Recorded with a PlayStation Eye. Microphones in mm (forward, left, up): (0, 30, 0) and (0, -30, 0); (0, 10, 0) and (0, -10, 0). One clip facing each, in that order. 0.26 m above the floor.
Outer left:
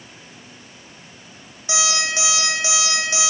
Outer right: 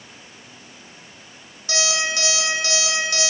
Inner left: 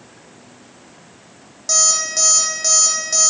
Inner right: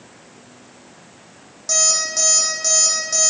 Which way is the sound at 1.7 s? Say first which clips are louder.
Outer left 1 dB, inner left 1 dB; 15° left (ahead or behind).